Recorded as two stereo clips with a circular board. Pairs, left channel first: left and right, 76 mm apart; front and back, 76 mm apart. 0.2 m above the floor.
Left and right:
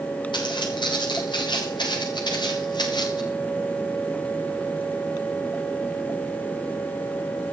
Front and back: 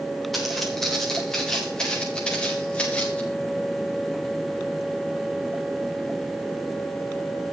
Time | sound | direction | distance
0.3 | footsteps | 90° left | 6.5 m